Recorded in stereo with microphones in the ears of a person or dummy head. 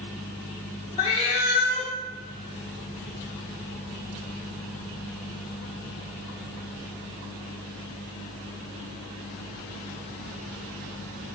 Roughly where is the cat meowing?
Centre.